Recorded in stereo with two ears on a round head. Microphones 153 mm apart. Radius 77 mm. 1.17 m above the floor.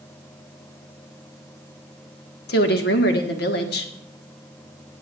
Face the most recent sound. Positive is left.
turn(degrees=65)  # may be behind; listen again after turning